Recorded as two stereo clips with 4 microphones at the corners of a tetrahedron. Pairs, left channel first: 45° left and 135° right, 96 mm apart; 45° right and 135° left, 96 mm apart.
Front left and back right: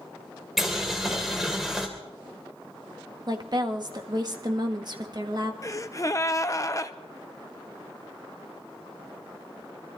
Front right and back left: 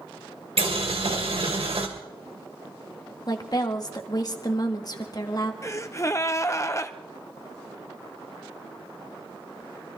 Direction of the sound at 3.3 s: 90° right.